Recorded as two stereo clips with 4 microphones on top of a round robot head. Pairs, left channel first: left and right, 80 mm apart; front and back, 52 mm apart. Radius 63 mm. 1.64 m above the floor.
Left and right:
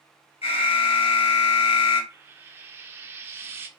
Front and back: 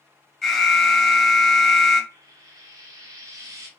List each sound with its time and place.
0.4 s an alarm: 80° left, 1.8 m
2.1 s frying: 155° right, 0.9 m